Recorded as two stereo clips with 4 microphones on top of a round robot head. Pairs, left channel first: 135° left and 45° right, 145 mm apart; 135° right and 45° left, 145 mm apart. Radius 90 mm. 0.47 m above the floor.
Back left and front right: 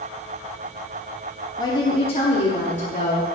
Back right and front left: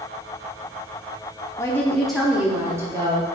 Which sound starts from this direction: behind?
A woman speaking, at 1.6 s.